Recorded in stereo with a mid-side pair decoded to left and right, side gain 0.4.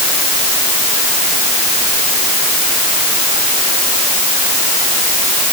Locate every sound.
Only background noise.